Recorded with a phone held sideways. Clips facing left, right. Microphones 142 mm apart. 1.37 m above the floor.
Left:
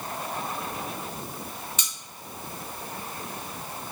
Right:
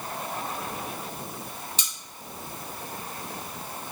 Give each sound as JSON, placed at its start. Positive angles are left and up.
{"t": 1.8, "sound": "cutlery clinking", "side_deg": -35, "distance_m": 1.0}